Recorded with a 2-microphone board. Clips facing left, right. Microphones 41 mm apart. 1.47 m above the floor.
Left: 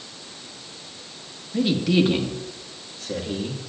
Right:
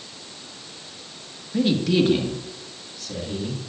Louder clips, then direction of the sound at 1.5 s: Even; centre (ahead or behind).